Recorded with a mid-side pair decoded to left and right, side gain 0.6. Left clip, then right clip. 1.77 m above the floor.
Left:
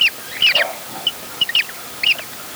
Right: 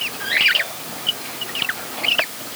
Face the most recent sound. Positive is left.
No sound to turn to.